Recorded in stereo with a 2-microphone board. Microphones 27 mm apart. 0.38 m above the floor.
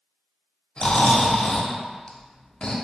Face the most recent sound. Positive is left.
turn(degrees=40)  # may be behind; listen again after turning